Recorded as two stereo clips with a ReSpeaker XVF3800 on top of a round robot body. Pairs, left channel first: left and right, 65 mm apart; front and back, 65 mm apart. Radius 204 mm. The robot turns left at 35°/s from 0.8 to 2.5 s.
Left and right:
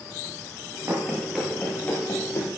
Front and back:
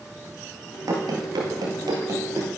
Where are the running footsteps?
150° right, 1.4 m; by 2.5 s 130° left, 2 m.